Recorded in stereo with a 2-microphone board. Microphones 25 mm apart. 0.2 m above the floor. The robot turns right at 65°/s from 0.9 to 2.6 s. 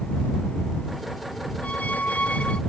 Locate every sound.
1.6 s a squeak: 65° left; by 2.6 s 130° left